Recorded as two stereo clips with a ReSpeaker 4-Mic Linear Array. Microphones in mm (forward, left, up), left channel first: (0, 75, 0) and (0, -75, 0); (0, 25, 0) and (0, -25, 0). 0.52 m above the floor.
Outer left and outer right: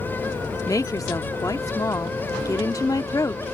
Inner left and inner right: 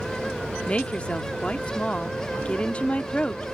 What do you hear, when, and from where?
0.7 s a woman speaking: 25° left (ahead or behind)